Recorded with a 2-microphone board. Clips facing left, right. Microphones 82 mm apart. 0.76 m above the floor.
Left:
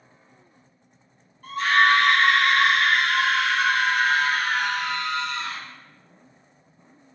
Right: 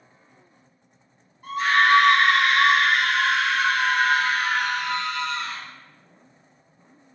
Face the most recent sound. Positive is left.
turn(degrees=20)  # may be behind; listen again after turning